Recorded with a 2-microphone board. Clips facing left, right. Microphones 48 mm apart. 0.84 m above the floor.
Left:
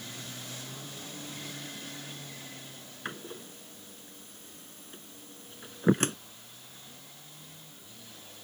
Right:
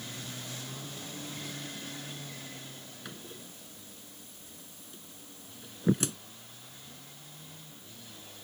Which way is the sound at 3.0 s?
45° left (ahead or behind).